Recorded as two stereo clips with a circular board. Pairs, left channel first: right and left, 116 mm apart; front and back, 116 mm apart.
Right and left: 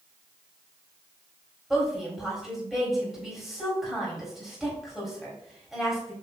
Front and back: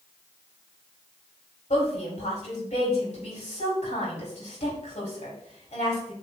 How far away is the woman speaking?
About 4 m.